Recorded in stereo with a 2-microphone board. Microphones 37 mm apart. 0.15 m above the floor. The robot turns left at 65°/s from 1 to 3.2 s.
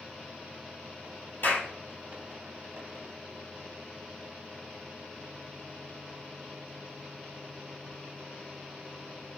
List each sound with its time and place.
1.4 s a clap: 70° left (ahead or behind), 2.5 m